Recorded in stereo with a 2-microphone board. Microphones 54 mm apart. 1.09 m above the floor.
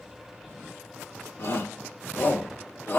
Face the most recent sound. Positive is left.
turn(degrees=40)  # may be behind; listen again after turning